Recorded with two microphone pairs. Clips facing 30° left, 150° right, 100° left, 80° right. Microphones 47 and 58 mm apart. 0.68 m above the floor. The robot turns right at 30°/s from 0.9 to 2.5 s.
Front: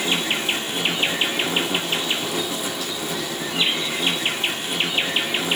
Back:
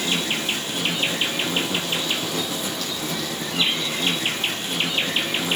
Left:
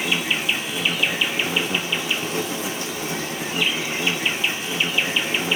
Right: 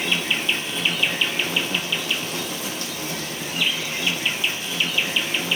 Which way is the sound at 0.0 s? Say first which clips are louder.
Front 2 dB, left 1 dB; 40° left.